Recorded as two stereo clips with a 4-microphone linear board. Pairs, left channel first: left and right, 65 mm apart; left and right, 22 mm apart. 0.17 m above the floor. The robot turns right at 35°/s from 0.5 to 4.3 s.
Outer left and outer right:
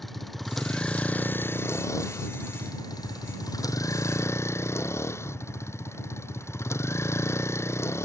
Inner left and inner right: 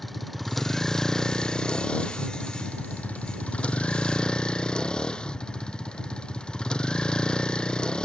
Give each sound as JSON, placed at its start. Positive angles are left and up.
{"t": 0.0, "sound": "a vehicle", "azimuth_deg": 0}